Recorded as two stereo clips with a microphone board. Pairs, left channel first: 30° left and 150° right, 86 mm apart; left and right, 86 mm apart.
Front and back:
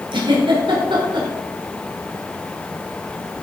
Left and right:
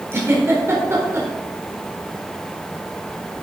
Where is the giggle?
150° right, 4 m.